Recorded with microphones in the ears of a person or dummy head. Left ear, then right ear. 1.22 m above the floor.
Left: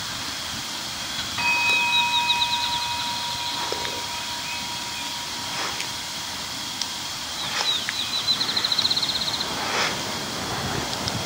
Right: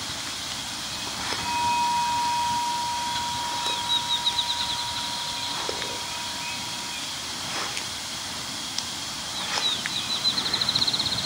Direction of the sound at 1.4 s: 40° left (ahead or behind).